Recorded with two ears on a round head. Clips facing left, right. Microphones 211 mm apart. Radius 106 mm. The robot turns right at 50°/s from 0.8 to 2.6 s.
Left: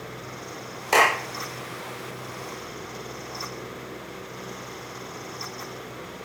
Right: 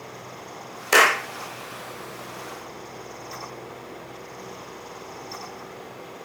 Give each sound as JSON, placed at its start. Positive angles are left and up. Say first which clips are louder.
{"t": 0.9, "sound": "a clap", "louder": "right 1 dB", "side_deg": -20, "distance_m": 0.6}